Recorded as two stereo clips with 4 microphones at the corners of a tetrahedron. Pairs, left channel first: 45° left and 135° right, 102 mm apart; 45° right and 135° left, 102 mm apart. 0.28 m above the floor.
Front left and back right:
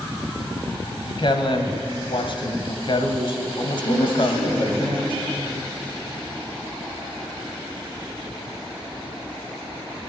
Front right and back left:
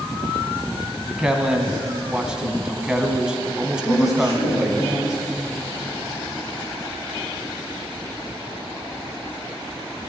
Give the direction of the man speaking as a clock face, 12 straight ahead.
10 o'clock.